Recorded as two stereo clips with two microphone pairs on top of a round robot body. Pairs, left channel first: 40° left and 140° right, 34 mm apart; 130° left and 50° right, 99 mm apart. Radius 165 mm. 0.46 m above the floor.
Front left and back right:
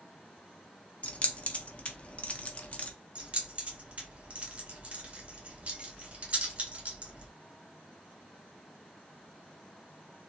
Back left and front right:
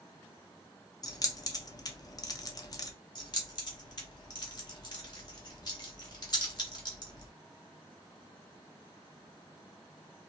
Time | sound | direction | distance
1.0 | keys jangling | 80° left | 0.6 m
3.1 | keys jangling | 170° left | 1.3 m